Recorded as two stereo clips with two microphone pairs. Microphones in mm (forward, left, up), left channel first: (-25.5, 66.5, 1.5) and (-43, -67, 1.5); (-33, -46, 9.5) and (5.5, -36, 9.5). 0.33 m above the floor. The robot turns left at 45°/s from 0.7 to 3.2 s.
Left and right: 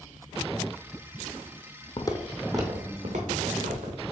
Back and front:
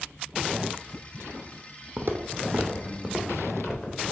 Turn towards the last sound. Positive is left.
turn(degrees=-100)